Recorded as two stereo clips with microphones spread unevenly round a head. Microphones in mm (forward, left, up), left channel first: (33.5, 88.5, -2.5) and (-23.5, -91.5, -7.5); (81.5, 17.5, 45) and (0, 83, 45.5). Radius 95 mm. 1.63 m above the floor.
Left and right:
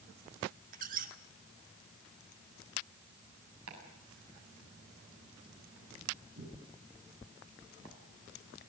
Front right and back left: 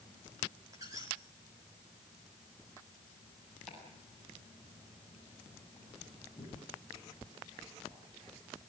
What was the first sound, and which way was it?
A squeak, 150° right.